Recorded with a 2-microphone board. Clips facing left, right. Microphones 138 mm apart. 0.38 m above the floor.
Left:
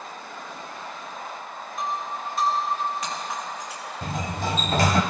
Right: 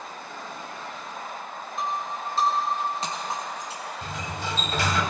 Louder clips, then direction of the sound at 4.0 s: Left 7 dB; 45° left (ahead or behind).